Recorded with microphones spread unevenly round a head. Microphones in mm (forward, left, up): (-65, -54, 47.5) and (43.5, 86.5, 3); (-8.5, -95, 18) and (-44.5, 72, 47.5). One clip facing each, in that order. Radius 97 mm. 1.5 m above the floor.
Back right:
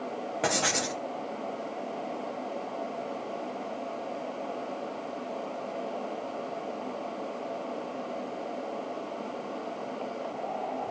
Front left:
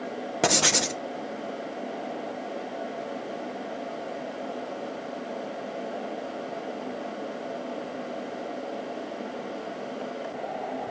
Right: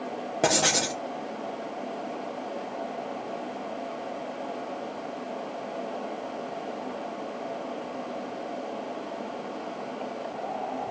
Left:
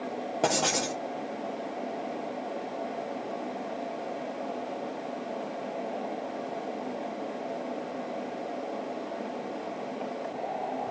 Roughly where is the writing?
Ahead.